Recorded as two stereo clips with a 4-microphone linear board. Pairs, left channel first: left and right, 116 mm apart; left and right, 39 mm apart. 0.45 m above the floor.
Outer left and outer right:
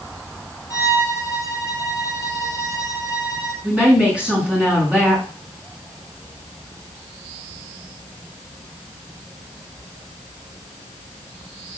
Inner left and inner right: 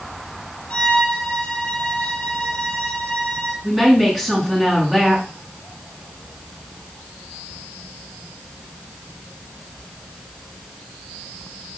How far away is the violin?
About 2 m.